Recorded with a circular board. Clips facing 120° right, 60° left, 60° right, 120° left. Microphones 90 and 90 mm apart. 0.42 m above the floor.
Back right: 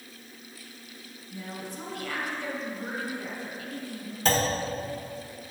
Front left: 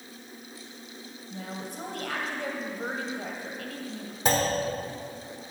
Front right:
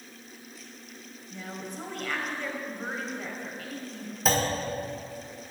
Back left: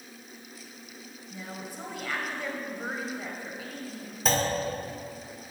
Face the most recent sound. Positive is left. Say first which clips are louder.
# even, front right 1 dB
turn(degrees=25)